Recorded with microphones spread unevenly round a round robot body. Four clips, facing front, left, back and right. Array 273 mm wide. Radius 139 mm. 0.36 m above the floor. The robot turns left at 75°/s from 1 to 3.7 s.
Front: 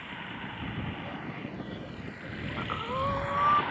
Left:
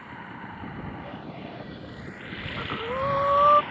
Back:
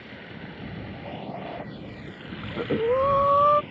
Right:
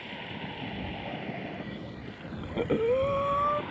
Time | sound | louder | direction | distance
0.0 | running water | even, front 1 dB | 140° right | ?
2.4 | breathing | right 7 dB, back 11 dB | 125° right | ?